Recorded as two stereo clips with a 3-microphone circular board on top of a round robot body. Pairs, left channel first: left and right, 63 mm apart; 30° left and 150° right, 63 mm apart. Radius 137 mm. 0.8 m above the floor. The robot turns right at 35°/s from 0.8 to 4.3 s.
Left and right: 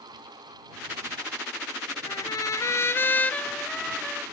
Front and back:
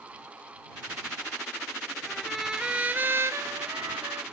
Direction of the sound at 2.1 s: 115° left.